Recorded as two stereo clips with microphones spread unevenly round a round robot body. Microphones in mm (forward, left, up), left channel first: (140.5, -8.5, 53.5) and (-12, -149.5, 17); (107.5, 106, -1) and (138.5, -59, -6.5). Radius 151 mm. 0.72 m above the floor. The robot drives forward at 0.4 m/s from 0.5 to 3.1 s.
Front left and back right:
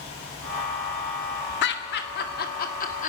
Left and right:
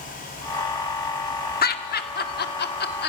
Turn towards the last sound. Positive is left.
turn(degrees=105)